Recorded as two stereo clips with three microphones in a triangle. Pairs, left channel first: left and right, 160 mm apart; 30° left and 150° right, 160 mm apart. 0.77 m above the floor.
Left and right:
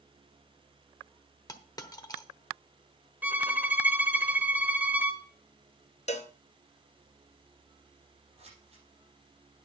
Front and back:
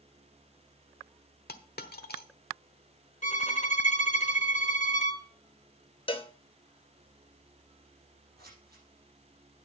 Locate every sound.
1.5 s a dropped coin: 25° left, 1.1 m
3.2 s a violin: 10° right, 1.3 m
6.1 s a cowbell: 70° left, 0.8 m
8.4 s scissors: 140° right, 5 m